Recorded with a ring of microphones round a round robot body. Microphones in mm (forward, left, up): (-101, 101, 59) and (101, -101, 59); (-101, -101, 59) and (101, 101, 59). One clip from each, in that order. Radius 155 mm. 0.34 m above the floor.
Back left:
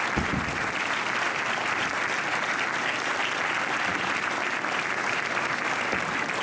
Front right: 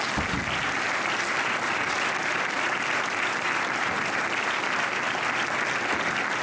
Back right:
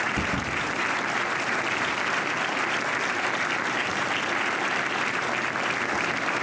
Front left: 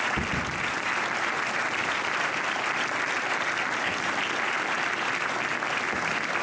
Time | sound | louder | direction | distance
0.2 | a thud | front right 1 dB, back right 2 dB | 135° left | 2.5 m